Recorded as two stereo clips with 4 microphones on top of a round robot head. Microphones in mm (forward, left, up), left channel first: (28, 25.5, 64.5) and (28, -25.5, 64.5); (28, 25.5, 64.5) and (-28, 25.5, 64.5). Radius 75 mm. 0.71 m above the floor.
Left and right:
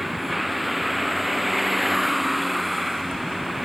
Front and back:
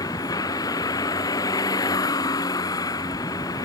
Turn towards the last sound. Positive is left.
turn(degrees=0)